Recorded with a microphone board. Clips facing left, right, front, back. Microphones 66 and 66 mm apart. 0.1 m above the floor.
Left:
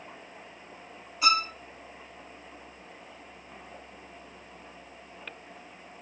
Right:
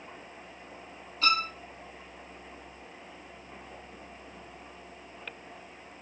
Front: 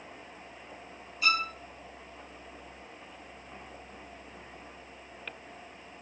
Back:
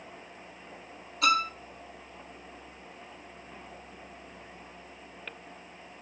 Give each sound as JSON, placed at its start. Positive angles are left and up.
{"t": 1.2, "sound": "a violin", "azimuth_deg": 165, "distance_m": 0.8}